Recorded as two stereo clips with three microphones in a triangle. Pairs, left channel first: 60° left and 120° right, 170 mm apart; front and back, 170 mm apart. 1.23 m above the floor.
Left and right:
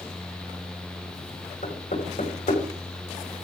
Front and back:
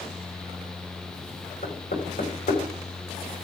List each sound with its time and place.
1.6 s knocking: 25° left, 5.5 m